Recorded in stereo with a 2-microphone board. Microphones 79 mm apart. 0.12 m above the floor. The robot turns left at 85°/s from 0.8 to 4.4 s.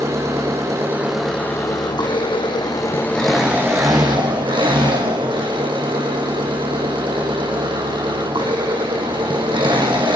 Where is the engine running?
145° right, 2 m; by 10.2 s 90° right, 2 m.